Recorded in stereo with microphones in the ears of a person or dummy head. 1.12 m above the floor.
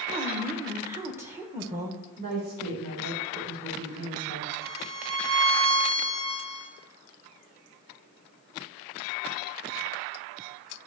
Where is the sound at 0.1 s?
10° right (ahead or behind), 1.0 m.